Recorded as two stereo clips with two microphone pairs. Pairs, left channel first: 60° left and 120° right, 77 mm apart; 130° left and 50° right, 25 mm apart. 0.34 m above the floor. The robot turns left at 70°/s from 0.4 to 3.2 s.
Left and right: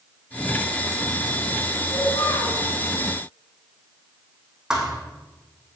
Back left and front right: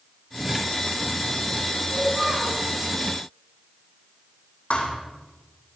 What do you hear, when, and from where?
1.9 s a child speaking: 50° left, 2.5 m; by 2.6 s 5° left, 2.5 m
4.7 s a thud: 160° left, 3 m